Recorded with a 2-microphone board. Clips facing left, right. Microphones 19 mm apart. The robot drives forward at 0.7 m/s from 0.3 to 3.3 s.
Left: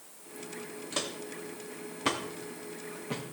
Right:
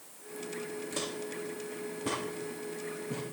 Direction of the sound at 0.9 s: 30° left (ahead or behind).